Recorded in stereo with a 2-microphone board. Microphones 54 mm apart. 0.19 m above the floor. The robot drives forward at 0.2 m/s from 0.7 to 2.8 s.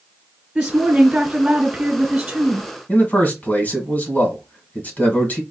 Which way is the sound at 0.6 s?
20° right (ahead or behind).